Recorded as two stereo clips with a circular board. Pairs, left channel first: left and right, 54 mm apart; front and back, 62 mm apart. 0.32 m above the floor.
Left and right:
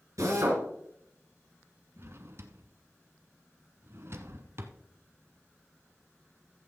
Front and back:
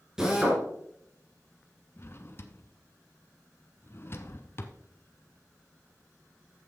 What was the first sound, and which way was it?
A drill, 100° right.